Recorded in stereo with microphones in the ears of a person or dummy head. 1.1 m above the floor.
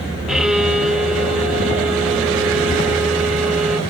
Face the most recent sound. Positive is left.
turn(degrees=-5)  # may be behind; listen again after turning